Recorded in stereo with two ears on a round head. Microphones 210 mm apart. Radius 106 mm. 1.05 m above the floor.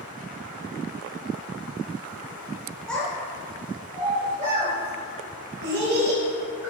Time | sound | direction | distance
2.9 | a child speaking | 5° left (ahead or behind) | 2.5 m